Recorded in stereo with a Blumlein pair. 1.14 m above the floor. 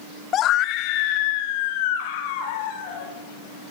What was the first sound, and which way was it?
A scream, 30° left.